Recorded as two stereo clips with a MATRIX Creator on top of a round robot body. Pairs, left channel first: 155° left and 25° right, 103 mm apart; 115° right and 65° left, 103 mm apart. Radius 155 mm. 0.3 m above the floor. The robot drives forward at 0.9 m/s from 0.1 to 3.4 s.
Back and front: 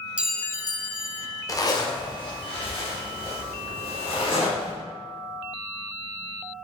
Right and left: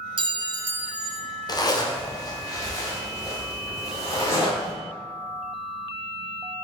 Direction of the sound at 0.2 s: 55° left.